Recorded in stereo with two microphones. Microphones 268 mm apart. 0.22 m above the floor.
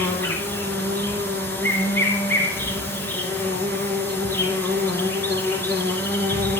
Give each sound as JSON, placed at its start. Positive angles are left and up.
{"t": 0.0, "sound": "an insect", "side_deg": 10, "distance_m": 1.8}